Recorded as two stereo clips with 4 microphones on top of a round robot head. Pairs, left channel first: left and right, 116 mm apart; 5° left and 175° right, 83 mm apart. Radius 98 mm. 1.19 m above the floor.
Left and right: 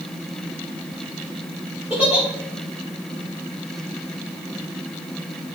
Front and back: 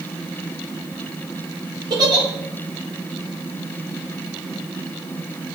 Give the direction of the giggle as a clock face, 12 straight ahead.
6 o'clock.